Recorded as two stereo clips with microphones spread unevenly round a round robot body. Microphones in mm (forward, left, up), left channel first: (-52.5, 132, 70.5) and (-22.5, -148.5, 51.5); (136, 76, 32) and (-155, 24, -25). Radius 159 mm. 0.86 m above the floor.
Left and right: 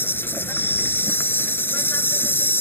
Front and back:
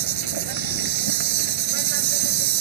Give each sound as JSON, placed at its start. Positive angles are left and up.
{"t": 0.0, "sound": "an insect", "azimuth_deg": 180}